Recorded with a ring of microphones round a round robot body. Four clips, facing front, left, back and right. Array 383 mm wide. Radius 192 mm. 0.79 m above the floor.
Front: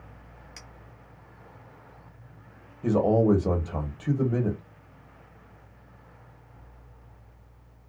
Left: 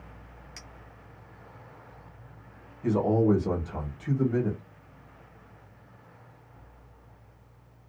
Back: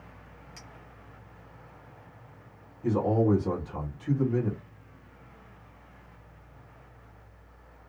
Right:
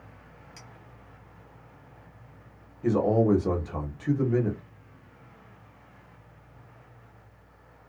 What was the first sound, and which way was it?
A clink, 45° left.